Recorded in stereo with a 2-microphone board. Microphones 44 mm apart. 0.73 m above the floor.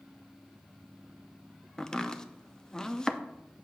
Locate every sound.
1.8 s chopping: 15° left (ahead or behind), 0.5 m